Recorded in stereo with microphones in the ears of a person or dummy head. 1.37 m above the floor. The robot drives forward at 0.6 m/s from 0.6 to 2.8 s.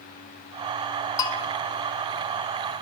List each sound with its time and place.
1.2 s a bell: 20° left (ahead or behind), 0.7 m; by 1.4 s 25° left (ahead or behind), 0.5 m